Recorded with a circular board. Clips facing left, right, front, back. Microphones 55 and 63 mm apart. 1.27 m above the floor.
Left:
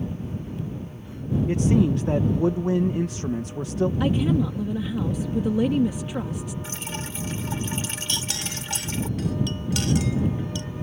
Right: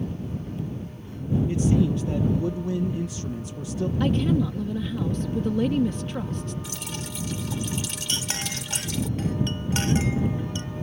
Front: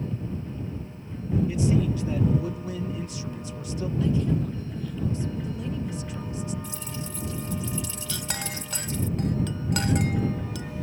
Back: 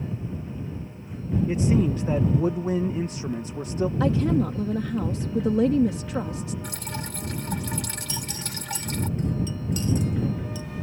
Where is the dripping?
150° left.